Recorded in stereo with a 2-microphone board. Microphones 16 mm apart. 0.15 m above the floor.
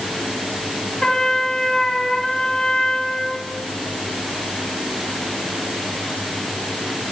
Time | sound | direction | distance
1.0 | a trumpet | 45° left (ahead or behind) | 3 m